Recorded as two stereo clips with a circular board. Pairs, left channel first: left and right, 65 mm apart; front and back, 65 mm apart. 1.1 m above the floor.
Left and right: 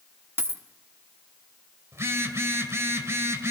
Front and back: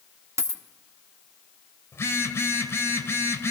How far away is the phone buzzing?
About 1.8 m.